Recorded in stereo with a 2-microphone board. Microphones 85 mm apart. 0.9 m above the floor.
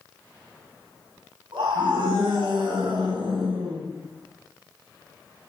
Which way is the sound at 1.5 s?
85° right.